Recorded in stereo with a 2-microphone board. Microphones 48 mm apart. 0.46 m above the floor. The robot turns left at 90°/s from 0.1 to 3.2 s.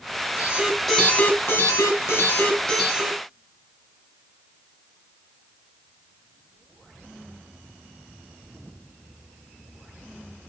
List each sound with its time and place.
0.4 s an alarm: 135° right, 3 m; by 3.2 s 30° right, 3 m